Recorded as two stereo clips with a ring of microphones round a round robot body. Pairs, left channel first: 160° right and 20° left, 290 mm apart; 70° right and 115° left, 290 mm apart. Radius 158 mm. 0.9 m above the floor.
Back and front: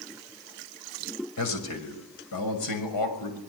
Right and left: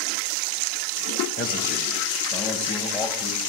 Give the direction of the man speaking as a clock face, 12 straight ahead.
4 o'clock.